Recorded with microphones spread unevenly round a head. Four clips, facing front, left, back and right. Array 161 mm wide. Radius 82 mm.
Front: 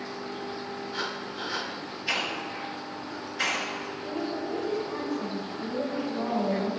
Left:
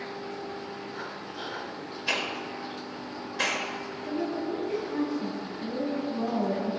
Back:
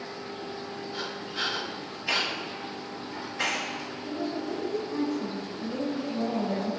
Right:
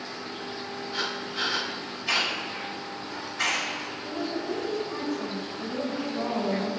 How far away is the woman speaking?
About 4 m.